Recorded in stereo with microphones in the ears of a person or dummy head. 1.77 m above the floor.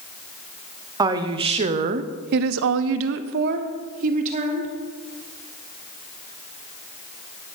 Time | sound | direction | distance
1.0 | a woman speaking | 25° right (ahead or behind) | 1.0 m